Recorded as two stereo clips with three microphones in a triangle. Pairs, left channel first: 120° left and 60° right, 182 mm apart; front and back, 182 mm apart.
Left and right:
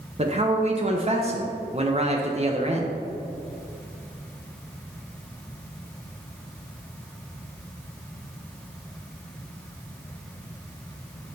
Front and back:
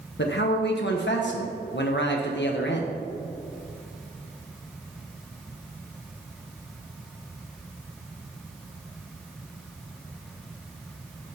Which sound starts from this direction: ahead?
A man speaking, at 0.2 s.